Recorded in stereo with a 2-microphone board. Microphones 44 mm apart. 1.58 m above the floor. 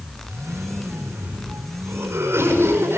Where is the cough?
80° right, 6 m.